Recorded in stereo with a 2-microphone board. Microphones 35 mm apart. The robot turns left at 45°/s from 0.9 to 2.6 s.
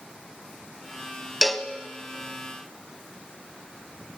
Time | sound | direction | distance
1.4 | a cowbell | centre (ahead or behind) | 0.6 m